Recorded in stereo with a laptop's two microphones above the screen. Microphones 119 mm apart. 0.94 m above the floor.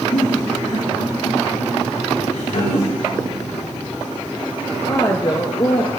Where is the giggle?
85° left, 7.5 m.